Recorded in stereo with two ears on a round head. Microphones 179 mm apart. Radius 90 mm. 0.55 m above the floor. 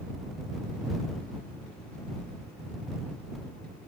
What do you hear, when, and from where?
Only background noise.